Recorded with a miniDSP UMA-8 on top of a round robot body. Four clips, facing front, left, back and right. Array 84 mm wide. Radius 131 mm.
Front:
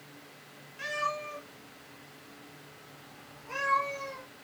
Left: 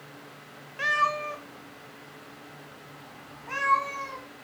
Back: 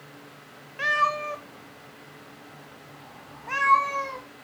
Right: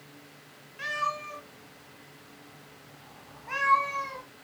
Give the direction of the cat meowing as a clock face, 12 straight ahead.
7 o'clock.